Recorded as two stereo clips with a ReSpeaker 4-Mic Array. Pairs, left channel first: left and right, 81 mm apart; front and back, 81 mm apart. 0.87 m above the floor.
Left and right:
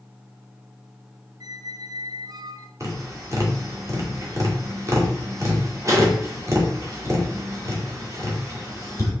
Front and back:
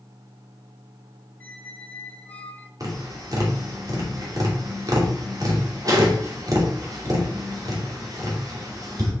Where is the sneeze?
I don't hear a sneeze.